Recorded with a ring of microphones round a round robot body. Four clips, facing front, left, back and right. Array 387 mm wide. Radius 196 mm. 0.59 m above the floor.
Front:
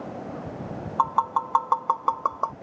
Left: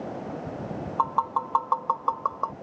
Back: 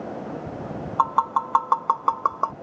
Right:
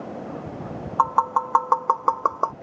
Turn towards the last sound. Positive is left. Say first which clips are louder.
# right 5 dB, back 2 dB
turn(degrees=-100)